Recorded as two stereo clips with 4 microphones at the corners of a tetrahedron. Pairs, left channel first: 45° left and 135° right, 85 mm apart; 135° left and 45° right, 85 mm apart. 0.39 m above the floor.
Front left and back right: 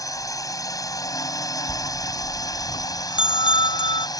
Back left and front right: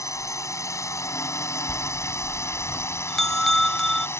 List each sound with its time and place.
0.0 s a drone: 85° left; by 4.2 s 80° left
1.7 s a bell: 50° left